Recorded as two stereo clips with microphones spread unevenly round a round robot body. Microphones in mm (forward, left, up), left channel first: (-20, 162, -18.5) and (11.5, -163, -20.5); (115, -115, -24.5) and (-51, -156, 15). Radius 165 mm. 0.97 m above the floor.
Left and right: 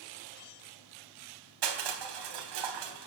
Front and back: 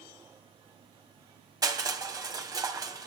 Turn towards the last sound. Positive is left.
turn(degrees=-100)